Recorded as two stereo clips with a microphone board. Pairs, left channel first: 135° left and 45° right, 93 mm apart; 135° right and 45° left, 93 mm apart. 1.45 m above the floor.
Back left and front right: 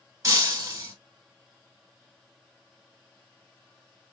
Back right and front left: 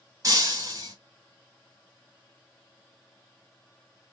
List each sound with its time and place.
0.2 s breaking glass: 5° left, 2.5 m